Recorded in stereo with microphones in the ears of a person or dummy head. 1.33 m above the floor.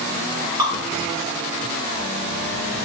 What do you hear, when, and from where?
0.6 s dripping: 25° right (ahead or behind), 1.8 m